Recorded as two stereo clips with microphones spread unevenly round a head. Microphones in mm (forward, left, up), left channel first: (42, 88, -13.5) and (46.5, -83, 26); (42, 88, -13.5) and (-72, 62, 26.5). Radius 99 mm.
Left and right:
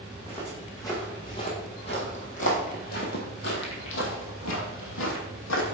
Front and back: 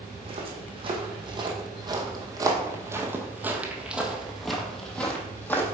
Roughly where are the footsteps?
Behind.